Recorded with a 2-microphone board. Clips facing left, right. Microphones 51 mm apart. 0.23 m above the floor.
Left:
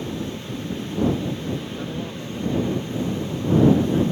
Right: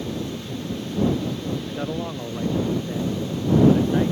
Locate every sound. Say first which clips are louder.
1.7 s a man speaking: right 2 dB; 30° right (ahead or behind)